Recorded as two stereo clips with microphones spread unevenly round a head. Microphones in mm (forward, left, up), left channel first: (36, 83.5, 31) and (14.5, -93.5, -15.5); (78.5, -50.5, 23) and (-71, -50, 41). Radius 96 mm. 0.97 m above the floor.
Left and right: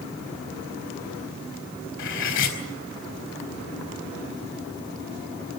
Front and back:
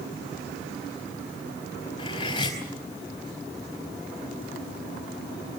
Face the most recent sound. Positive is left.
turn(degrees=65)